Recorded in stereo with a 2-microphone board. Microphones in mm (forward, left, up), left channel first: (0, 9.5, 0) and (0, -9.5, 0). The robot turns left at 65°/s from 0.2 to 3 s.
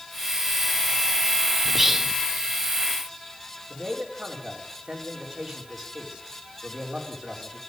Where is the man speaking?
55° right (ahead or behind), 4.5 m.